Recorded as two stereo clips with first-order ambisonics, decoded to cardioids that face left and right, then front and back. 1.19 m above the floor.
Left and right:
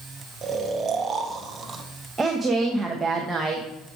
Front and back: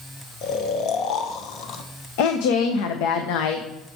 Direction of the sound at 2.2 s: 10° right.